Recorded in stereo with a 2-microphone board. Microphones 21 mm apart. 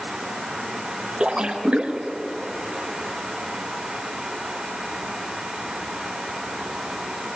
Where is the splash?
60° right (ahead or behind), 1.3 m.